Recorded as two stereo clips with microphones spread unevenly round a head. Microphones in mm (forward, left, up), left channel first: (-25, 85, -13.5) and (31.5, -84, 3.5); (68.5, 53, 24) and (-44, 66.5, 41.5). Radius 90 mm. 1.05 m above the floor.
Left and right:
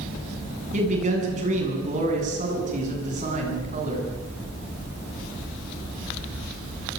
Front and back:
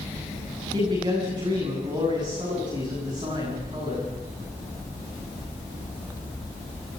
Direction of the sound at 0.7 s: 120° right.